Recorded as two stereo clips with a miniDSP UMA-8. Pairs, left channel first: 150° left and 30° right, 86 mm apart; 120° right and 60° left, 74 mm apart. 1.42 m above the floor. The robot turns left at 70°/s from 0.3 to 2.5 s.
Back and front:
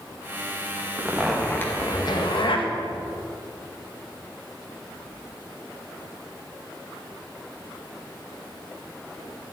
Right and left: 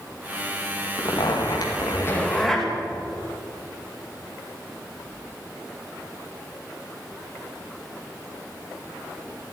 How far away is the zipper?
About 2 m.